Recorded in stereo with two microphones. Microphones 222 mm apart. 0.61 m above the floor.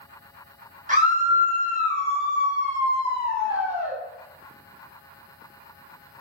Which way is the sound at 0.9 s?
35° right (ahead or behind).